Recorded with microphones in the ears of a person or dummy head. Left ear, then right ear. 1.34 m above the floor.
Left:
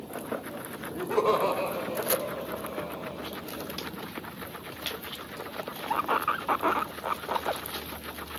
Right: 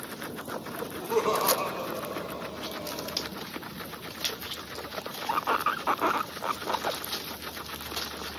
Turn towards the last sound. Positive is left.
turn(degrees=40)  # may be behind; listen again after turning